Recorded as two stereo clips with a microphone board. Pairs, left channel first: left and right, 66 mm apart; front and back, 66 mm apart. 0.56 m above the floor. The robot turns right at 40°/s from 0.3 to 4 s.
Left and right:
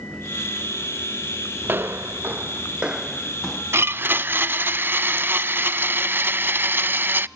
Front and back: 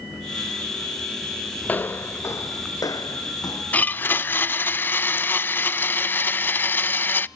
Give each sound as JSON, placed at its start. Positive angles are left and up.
{"t": 1.6, "sound": "footsteps", "azimuth_deg": -55, "distance_m": 0.6}
{"t": 3.7, "sound": "a blender", "azimuth_deg": -60, "distance_m": 0.5}